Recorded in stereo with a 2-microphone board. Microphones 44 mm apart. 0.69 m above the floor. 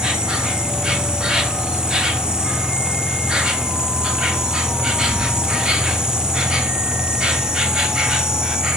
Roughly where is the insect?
Centre.